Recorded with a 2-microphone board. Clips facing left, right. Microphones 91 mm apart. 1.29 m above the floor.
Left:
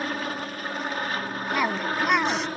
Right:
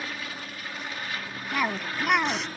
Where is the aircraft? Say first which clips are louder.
Left 7 dB; 45° left (ahead or behind); by 2.6 s 40° left (ahead or behind).